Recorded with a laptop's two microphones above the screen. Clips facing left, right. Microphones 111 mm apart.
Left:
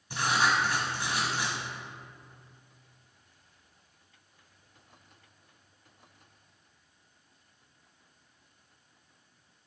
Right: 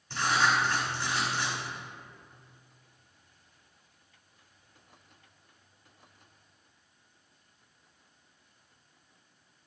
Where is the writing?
15° left (ahead or behind), 1.3 m.